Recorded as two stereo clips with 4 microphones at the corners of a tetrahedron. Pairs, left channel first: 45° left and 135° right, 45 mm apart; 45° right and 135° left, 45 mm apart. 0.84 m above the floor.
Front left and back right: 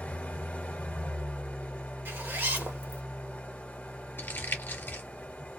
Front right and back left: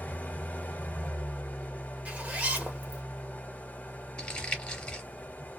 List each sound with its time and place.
0.0 s an engine running: 5° right, 0.8 m
2.0 s a zipper: 170° right, 1.1 m
4.2 s crumpling: 15° left, 0.9 m